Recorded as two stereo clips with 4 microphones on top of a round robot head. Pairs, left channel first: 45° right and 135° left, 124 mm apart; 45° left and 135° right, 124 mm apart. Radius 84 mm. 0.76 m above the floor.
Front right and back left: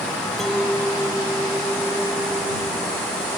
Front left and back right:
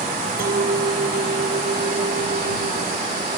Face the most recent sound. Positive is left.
turn(degrees=-130)